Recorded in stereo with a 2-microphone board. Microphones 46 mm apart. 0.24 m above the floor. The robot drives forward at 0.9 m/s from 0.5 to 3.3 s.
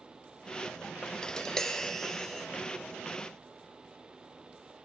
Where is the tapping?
15° left (ahead or behind), 0.9 m; by 2.5 s 5° left (ahead or behind), 2 m.